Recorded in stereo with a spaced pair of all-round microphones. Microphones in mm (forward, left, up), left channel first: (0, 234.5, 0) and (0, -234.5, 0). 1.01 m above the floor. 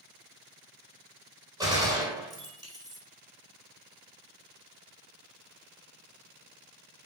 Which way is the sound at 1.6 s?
10° right (ahead or behind).